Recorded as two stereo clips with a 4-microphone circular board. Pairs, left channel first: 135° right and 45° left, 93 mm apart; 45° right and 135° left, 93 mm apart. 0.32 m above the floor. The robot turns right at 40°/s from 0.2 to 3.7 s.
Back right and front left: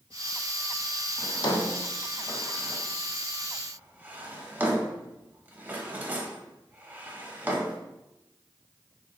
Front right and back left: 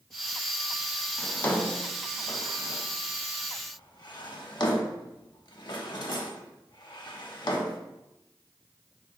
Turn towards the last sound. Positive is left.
turn(degrees=-20)